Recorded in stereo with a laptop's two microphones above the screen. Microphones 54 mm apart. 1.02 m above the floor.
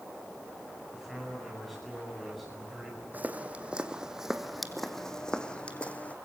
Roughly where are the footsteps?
Right.